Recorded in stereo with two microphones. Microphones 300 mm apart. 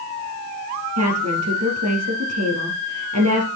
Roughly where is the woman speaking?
Right.